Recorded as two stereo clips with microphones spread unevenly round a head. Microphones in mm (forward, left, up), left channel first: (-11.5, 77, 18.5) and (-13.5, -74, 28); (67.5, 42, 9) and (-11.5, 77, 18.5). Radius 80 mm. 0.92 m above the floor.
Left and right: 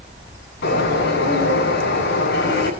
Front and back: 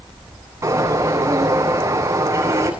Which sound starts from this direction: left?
A bird, at 0.6 s.